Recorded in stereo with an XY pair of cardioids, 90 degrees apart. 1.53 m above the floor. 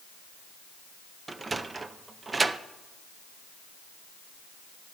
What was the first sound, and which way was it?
A sliding door, 30° right.